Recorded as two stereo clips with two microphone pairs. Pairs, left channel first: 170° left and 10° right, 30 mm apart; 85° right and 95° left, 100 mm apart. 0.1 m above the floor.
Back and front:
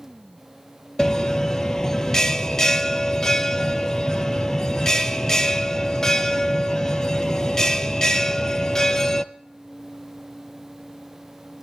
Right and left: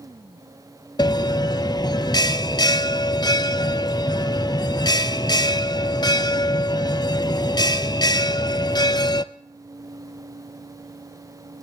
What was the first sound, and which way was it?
A bell, 120° right.